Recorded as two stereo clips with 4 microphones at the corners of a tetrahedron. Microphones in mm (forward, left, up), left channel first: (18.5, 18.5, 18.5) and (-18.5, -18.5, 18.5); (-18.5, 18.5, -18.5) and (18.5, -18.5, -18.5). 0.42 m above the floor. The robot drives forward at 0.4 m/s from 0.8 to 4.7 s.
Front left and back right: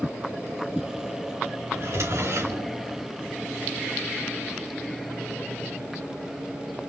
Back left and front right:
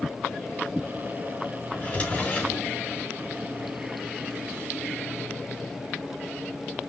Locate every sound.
1.7 s a drawer: 160° right, 3 m